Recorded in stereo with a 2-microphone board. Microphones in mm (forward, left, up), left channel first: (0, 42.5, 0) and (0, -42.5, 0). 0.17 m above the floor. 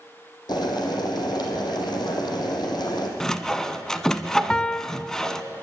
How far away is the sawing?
About 0.9 m.